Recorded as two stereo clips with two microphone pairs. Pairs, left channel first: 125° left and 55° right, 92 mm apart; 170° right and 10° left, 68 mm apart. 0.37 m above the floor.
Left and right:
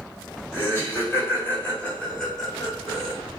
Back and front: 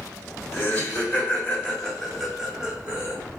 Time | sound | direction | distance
0.5 | laughter | 165° left | 1.5 m